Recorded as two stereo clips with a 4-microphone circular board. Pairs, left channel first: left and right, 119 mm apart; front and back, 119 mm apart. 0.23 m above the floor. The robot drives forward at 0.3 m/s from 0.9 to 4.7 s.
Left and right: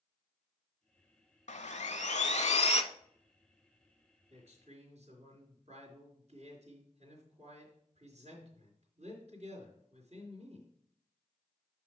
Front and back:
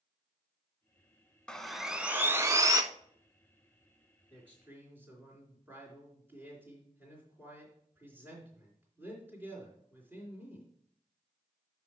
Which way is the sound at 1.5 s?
80° left.